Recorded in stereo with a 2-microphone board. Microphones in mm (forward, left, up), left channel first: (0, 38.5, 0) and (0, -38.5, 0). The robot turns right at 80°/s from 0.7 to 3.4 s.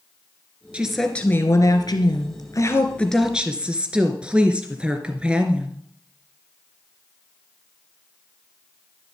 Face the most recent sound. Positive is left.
turn(degrees=-165)